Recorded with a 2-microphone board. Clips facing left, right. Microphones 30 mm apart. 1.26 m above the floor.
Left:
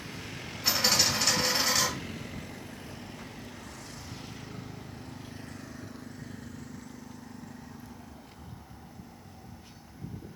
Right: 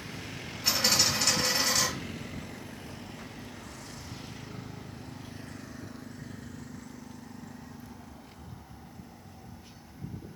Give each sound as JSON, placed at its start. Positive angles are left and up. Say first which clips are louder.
{"t": 0.6, "sound": "a dropped coin", "louder": "even", "side_deg": 15, "distance_m": 1.5}